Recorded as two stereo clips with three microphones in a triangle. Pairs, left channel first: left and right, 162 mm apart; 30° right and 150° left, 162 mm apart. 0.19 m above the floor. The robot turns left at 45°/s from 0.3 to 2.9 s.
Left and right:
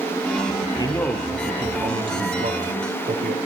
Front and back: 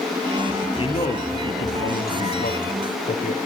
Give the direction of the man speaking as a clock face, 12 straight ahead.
11 o'clock.